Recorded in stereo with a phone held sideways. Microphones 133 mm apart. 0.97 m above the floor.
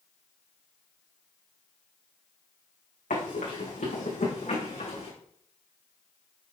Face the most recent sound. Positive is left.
turn(degrees=55)  # may be behind; listen again after turning